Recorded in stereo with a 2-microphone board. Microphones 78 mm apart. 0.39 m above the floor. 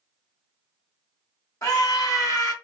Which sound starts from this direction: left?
A scream, at 1.6 s.